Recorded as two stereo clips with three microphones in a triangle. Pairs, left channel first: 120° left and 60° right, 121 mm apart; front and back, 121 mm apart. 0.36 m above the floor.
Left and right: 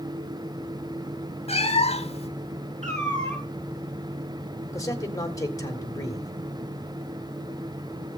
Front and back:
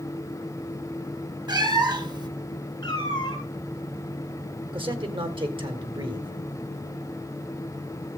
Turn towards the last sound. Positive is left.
turn(degrees=170)